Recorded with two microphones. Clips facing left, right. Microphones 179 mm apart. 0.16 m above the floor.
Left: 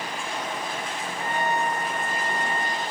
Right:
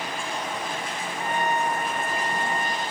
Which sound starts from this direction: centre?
A trumpet, at 1.2 s.